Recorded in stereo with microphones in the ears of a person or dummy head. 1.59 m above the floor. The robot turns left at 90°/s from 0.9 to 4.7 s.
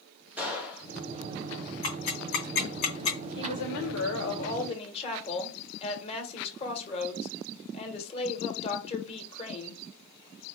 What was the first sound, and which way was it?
A gunshot, 5° right (ahead or behind).